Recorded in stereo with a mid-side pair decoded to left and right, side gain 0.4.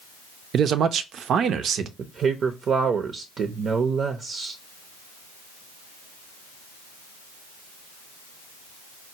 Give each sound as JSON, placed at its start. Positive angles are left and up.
{"t": 0.5, "sound": "a man speaking", "azimuth_deg": -70, "distance_m": 0.5}
{"t": 2.0, "sound": "a woman speaking", "azimuth_deg": -60, "distance_m": 0.6}